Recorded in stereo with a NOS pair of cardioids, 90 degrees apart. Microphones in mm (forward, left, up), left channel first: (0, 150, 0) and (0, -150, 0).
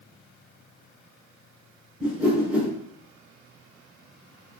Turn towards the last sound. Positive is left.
turn(degrees=-5)